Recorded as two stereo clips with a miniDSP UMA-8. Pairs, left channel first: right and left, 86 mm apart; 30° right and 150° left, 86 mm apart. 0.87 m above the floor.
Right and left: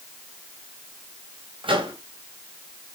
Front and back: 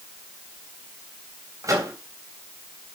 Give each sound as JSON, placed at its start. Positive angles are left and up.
{"t": 1.6, "sound": "a microwave", "azimuth_deg": 100, "distance_m": 3.5}